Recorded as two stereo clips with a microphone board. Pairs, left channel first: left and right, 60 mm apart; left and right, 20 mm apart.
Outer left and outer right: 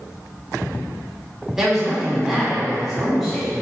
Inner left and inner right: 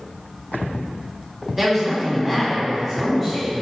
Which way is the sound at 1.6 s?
5° right (ahead or behind).